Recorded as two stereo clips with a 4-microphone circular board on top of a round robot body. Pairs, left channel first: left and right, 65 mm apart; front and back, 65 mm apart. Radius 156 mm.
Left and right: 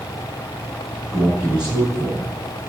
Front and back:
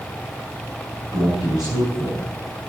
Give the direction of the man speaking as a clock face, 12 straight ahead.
5 o'clock.